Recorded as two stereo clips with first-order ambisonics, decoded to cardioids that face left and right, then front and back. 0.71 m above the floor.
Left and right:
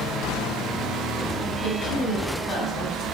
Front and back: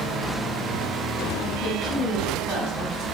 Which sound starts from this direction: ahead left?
A woman speaking, at 1.6 s.